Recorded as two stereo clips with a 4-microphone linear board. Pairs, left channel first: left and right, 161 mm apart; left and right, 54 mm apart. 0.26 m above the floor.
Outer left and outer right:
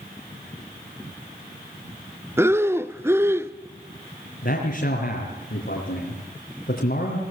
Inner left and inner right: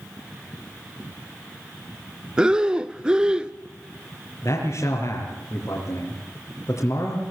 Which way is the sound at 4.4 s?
70° left (ahead or behind).